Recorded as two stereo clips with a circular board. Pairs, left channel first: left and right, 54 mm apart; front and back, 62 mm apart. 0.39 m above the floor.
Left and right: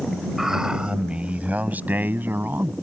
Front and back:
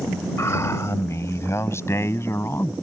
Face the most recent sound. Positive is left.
turn(degrees=-45)